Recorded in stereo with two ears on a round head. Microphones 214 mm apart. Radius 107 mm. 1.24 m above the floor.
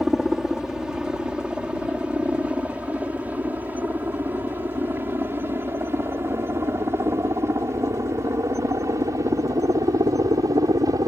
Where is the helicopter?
Centre (ahead or behind); by 11.1 s 15° right (ahead or behind).